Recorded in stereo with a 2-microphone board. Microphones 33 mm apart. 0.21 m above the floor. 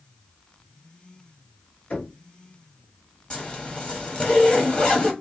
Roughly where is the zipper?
Left.